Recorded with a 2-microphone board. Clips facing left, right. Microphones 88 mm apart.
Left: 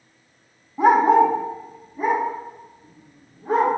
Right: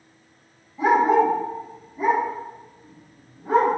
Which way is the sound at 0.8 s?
65° left (ahead or behind).